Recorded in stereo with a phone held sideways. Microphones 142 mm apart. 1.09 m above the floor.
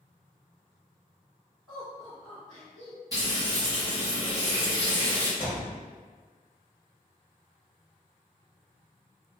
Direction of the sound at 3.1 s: 25° right (ahead or behind).